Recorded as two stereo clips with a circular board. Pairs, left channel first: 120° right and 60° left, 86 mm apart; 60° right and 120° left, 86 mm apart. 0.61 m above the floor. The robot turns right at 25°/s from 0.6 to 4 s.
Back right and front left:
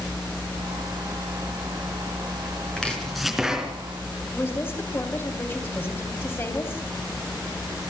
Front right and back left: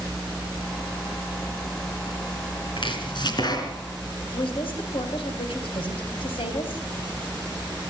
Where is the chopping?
40° right, 4 m; by 3.7 s 20° right, 4 m.